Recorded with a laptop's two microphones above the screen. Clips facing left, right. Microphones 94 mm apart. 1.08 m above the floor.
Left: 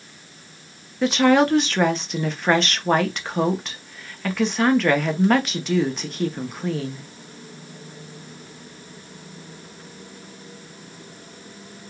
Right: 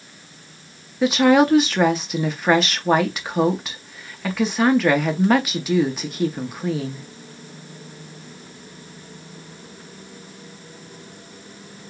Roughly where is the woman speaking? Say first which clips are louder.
Right 2 dB; centre.